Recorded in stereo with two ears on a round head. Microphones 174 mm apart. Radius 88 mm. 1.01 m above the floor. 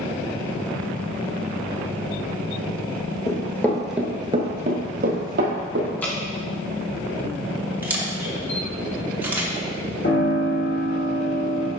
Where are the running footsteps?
20° left (ahead or behind), 1.6 m; by 5.9 s 50° right (ahead or behind), 2.5 m.